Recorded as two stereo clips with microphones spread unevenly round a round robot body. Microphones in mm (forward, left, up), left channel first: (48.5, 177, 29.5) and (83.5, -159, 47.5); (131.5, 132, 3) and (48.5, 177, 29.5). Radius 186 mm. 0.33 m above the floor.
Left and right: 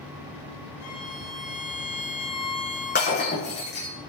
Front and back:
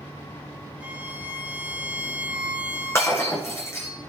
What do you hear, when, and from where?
0.8 s a violin: 75° left, 7 m
3.0 s breaking glass: 35° left, 8.5 m